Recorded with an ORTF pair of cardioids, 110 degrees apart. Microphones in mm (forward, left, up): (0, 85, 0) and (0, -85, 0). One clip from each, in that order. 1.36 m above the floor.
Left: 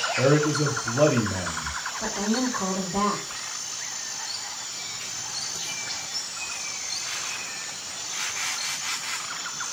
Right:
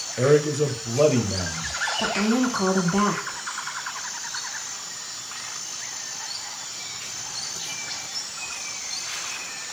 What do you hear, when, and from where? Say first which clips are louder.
0.2 s a man speaking: right 4 dB; 5° right, 0.7 m
2.0 s a woman speaking: right 2 dB; 65° right, 1.0 m